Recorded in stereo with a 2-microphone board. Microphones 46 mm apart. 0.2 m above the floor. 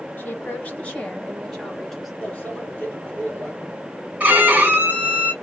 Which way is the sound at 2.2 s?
30° left (ahead or behind).